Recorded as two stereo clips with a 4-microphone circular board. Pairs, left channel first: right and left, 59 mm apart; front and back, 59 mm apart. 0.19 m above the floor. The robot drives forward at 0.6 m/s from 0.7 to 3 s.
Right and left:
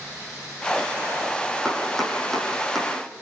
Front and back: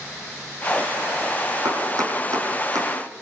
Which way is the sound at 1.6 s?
175° right.